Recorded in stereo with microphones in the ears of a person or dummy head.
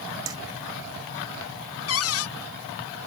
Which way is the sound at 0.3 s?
20° right (ahead or behind).